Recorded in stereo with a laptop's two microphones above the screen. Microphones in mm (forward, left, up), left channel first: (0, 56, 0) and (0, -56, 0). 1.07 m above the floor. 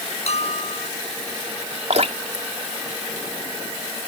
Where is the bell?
65° left (ahead or behind).